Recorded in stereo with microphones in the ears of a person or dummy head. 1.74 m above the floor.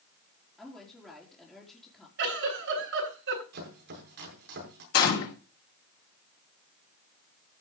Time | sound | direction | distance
0.6 | a woman speaking | 5° left (ahead or behind) | 3.5 m
2.2 | a giggle | 65° right (ahead or behind) | 9 m
3.5 | chopping | 55° right (ahead or behind) | 7.5 m
4.9 | a gunshot | 55° left (ahead or behind) | 3 m